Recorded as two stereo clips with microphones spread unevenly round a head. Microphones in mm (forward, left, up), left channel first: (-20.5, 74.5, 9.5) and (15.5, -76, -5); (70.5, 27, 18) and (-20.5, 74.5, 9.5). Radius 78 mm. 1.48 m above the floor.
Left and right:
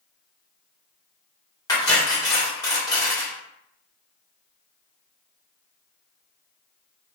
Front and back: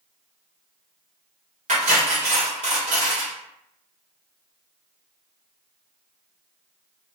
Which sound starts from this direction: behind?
Cutlery clinking, at 1.7 s.